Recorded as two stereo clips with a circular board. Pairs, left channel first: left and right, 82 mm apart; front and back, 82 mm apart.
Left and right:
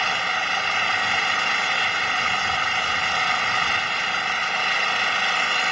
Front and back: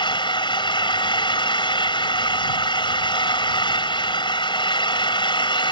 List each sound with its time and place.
0.0 s an engine running: straight ahead